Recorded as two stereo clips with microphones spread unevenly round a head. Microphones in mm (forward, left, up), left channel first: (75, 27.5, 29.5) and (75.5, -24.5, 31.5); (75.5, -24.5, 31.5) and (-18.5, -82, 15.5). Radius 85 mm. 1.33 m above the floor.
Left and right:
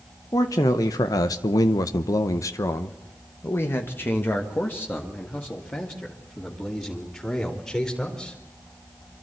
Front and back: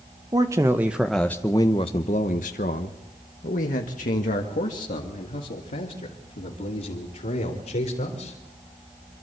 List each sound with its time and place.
0.3 s a man speaking: 140° left, 1.1 m; by 8.4 s 20° left, 4 m